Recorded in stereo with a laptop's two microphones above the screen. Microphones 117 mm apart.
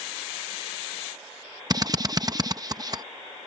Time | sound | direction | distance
1.7 | a drill | 35° right (ahead or behind) | ?